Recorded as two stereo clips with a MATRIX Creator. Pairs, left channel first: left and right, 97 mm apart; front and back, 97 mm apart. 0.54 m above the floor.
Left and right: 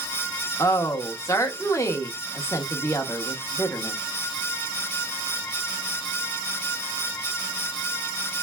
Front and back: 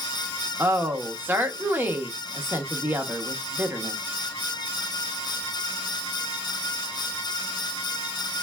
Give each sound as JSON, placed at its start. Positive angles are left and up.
{"t": 0.6, "sound": "a woman speaking", "azimuth_deg": 125, "distance_m": 0.8}